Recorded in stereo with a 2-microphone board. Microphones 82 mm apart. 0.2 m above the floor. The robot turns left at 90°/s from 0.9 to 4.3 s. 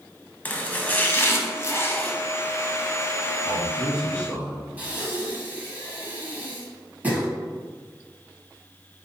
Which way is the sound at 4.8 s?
20° right (ahead or behind).